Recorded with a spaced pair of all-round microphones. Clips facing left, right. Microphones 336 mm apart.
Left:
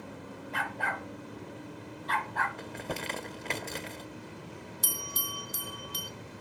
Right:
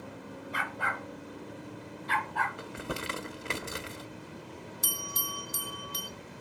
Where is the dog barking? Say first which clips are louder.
Left 2 dB; 5° right (ahead or behind), 1.6 m; by 2.5 s 40° right (ahead or behind), 2 m.